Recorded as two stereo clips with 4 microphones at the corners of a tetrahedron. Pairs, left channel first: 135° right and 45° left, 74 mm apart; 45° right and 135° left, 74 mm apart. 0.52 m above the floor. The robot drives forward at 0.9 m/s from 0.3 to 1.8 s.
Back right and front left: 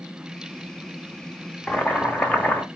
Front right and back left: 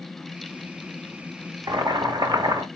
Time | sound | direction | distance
1.7 | boiling | 150° left | 0.7 m